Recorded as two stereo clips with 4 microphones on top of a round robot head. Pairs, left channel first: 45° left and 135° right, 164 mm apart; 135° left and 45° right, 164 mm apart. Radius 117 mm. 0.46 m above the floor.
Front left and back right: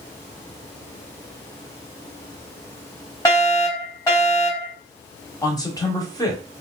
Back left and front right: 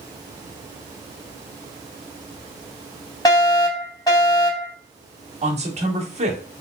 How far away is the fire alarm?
About 2.5 m.